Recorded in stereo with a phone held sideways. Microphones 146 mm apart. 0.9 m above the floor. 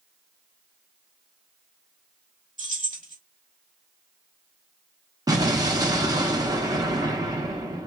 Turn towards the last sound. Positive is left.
turn(degrees=-25)  # may be behind; listen again after turning